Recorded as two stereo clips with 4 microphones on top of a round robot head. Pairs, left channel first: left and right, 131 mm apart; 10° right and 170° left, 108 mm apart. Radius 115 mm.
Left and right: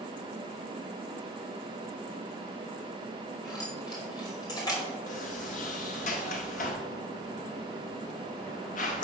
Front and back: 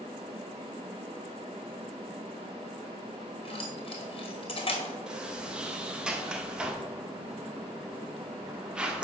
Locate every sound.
3.5 s keys jangling: 25° left, 2.5 m
5.1 s a sliding door: 90° left, 0.8 m